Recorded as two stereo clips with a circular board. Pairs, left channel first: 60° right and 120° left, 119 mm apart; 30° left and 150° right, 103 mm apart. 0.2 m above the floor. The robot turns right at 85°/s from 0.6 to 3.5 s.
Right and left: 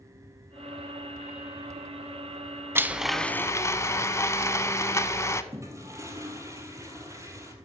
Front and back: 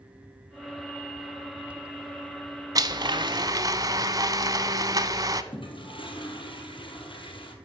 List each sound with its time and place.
2.8 s a blender: straight behind, 0.5 m; by 5.4 s 115° right, 0.5 m
5.5 s a toilet flushing: 55° left, 1.6 m